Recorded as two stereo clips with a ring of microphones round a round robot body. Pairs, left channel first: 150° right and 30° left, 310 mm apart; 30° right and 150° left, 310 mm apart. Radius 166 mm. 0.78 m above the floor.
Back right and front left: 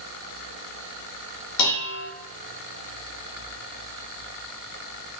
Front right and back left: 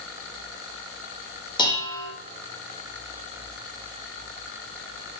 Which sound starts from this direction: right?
Dishes clattering, at 1.6 s.